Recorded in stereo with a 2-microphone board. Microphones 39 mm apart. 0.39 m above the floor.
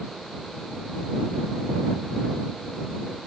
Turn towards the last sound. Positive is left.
No sound to turn to.